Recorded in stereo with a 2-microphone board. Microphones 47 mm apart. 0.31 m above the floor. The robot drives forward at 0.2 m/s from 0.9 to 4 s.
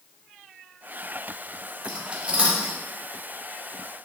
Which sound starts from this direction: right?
Cutlery clinking, at 1.8 s.